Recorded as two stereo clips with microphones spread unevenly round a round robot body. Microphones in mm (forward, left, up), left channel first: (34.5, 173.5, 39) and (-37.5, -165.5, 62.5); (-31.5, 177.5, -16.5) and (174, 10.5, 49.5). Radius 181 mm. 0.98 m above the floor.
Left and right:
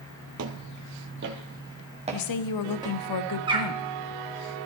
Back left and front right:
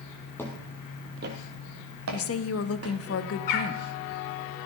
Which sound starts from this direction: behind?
A bird, at 3.5 s.